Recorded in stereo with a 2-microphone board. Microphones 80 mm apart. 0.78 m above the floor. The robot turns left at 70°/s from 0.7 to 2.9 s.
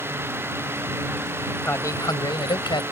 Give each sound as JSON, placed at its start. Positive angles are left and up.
{"t": 1.6, "sound": "a man speaking", "azimuth_deg": 150}